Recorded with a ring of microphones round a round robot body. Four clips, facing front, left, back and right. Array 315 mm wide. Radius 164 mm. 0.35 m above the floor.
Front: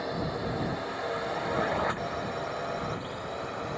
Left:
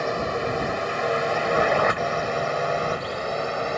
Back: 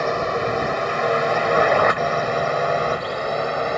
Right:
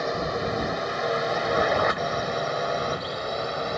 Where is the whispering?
No whispering in this recording.